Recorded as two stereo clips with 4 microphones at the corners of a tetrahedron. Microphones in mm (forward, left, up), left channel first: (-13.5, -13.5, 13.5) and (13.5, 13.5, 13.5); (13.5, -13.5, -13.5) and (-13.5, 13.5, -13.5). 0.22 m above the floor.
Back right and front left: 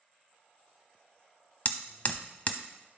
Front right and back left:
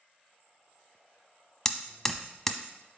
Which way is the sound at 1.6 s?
120° right.